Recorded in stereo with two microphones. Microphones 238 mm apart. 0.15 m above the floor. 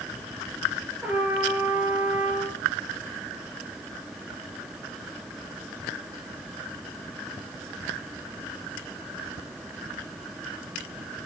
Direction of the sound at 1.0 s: 5° right (ahead or behind).